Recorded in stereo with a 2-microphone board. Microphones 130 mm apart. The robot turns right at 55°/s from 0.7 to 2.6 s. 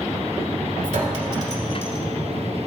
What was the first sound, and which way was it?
A clink, 65° right (ahead or behind).